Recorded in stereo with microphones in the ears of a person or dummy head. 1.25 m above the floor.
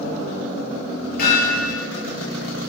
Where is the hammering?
55° left (ahead or behind), 8 m.